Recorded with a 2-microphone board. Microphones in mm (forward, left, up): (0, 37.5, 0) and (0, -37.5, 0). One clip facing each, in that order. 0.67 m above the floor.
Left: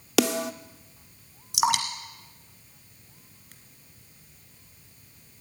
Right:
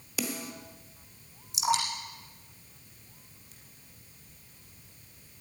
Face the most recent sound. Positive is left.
turn(degrees=75)  # may be behind; listen again after turning